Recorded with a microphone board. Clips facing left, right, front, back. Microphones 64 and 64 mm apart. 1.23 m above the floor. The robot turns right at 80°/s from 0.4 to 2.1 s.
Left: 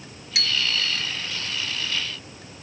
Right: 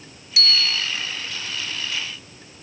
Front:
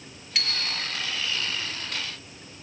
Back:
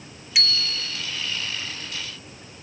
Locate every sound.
0.3 s a bicycle bell: 100° left, 2 m; by 1.0 s 150° left, 2 m